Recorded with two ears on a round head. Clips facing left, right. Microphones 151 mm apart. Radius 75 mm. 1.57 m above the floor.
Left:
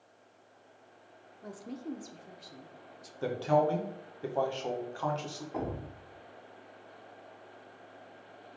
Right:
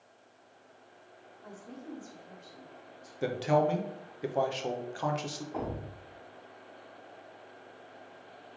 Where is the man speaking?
20° right (ahead or behind), 1.0 m.